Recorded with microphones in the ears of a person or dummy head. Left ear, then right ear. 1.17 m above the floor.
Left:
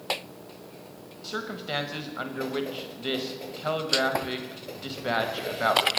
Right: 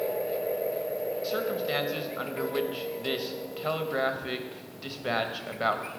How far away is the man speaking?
About 1.0 m.